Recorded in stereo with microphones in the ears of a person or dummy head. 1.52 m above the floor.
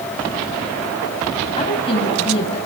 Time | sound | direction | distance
1.6 | a woman speaking | 35° left (ahead or behind) | 6.5 m